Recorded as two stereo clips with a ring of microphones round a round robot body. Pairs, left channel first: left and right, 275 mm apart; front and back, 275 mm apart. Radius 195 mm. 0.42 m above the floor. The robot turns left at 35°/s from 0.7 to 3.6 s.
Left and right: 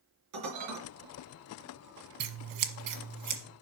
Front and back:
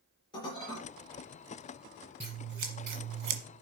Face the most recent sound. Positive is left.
turn(degrees=-155)